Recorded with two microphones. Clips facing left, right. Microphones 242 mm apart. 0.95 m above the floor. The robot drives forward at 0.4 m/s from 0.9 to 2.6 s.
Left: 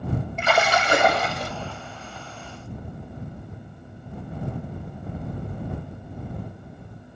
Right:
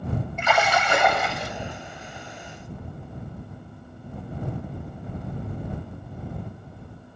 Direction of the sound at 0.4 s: 35° left (ahead or behind).